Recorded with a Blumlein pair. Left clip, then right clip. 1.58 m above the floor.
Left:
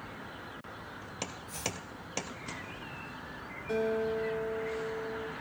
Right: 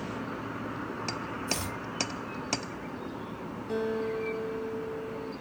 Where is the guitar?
25° left, 2.5 m.